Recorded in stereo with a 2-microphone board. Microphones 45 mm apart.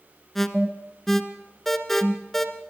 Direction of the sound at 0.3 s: 5° left (ahead or behind).